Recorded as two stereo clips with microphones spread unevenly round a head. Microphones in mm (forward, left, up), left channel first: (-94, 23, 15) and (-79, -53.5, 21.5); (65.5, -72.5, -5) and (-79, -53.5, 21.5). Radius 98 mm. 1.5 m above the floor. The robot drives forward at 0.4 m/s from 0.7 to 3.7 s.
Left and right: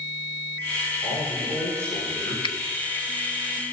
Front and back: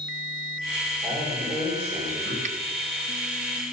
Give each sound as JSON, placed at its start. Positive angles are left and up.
{"t": 1.0, "sound": "a man speaking", "azimuth_deg": 115, "distance_m": 5.0}
{"t": 2.4, "sound": "a finger snap", "azimuth_deg": 120, "distance_m": 0.8}